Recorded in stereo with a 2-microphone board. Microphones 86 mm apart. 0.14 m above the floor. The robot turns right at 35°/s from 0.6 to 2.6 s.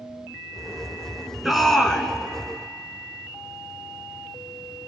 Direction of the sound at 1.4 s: Centre (ahead or behind).